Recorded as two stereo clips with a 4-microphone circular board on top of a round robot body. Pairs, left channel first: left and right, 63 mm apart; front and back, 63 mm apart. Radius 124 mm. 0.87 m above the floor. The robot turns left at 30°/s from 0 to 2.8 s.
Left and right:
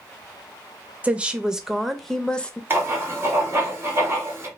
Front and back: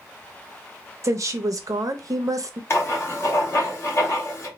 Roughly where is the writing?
Ahead right.